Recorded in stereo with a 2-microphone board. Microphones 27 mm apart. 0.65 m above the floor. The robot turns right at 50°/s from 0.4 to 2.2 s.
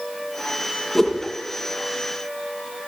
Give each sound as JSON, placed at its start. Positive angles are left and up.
{"t": 0.9, "sound": "a whoosh", "side_deg": 5, "distance_m": 5.0}